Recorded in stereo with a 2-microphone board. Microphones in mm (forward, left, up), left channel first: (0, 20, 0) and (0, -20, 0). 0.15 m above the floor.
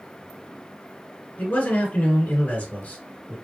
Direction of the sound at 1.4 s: 40° left (ahead or behind).